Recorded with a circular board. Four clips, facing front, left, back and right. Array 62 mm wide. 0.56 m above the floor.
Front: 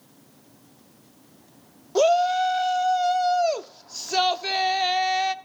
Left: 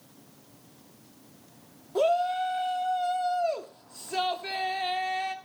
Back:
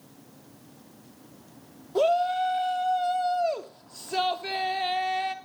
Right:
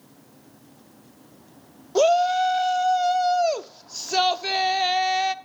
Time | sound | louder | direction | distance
1.9 | a shout | right 6 dB, front 4 dB | 55° right | 0.7 m